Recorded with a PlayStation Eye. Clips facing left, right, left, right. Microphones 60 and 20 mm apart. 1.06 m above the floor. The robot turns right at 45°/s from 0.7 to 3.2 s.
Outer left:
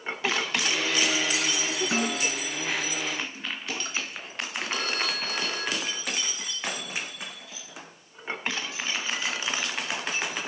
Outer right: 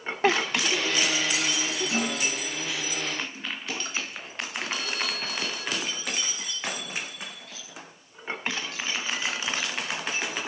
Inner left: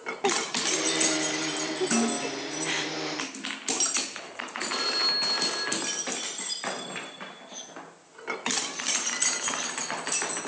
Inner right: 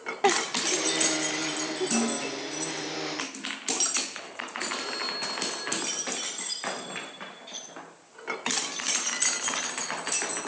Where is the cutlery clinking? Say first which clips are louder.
Even, inner right 1 dB; 55° right (ahead or behind), 6.5 m.